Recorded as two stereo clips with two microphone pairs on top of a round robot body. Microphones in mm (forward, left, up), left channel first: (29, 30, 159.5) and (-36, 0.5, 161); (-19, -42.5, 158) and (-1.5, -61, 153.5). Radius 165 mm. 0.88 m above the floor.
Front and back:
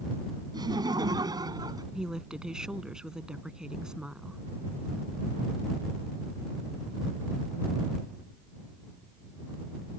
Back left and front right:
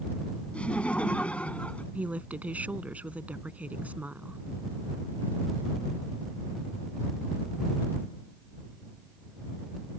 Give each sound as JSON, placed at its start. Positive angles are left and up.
{"t": 0.5, "sound": "laughter", "azimuth_deg": 175}
{"t": 1.9, "sound": "a woman speaking", "azimuth_deg": -75}